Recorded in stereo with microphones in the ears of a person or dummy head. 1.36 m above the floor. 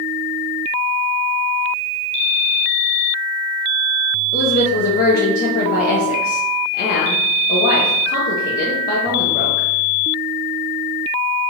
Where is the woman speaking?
55° left (ahead or behind), 0.9 m.